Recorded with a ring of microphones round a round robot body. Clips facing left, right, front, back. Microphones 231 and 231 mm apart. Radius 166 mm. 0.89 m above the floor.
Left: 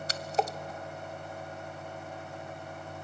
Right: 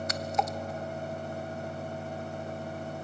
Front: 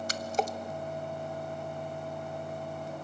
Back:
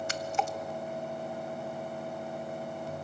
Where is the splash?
40° left, 1.0 m.